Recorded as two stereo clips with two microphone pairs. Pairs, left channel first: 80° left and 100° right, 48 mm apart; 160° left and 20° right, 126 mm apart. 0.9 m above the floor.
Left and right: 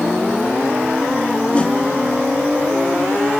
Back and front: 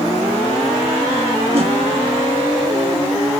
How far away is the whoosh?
About 1.3 m.